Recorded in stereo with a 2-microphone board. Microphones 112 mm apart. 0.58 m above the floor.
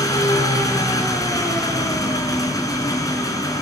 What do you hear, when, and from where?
0.0 s an engine running: 30° left (ahead or behind), 5 m